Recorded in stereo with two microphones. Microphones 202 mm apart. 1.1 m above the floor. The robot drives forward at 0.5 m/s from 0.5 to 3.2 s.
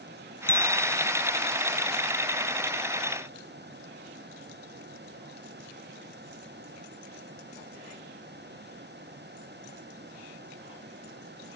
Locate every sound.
0.5 s a bicycle bell: 10° left (ahead or behind)